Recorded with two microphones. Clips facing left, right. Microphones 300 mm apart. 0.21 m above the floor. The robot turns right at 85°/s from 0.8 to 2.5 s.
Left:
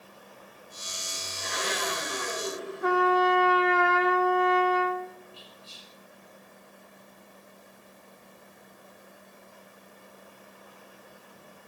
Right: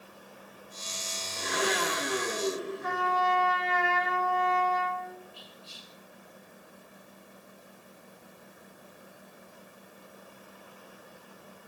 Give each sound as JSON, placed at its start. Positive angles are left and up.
{"t": 1.4, "sound": "a blender", "azimuth_deg": -130, "distance_m": 5.0}
{"t": 2.8, "sound": "a trumpet", "side_deg": 70, "distance_m": 1.4}
{"t": 5.3, "sound": "whispering", "side_deg": 60, "distance_m": 2.5}